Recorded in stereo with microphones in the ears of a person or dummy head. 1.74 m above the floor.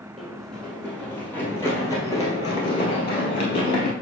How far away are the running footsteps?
About 2.5 m.